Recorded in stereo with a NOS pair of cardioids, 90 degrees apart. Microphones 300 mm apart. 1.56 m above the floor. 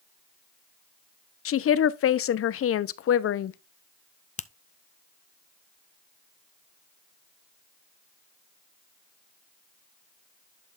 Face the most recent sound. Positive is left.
turn(degrees=25)